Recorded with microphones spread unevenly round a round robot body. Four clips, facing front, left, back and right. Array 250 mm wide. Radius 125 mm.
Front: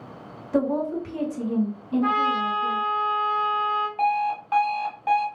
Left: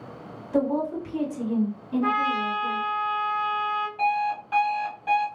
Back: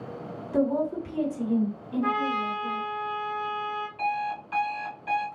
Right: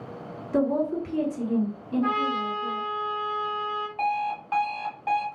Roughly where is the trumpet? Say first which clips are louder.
Left 2 dB, front 3 dB; ahead left.